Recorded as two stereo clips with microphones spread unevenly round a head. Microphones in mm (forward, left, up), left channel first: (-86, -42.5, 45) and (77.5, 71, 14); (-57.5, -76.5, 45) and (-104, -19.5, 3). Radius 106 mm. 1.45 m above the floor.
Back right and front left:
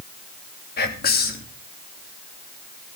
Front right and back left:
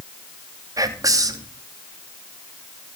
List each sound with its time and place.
0.8 s whispering: 170° left, 2.5 m